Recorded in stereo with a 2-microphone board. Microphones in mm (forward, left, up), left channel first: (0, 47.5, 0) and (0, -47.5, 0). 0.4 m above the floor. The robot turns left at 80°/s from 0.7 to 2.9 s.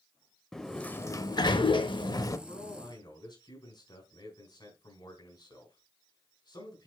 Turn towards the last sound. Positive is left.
turn(degrees=60)